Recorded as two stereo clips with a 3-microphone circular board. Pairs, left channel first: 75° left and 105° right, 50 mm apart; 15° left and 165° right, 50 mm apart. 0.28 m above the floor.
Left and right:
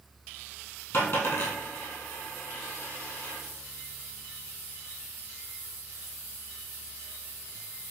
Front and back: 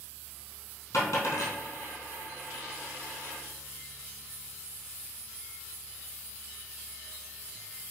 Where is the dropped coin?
35° left, 2 m.